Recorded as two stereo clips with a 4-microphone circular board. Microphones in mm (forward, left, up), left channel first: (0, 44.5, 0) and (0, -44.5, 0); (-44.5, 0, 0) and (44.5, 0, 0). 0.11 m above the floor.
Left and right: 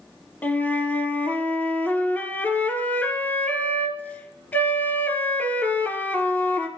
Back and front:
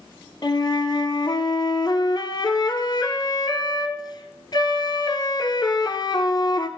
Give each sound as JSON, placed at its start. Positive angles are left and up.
{"t": 0.4, "sound": "a flute", "azimuth_deg": 155, "distance_m": 0.8}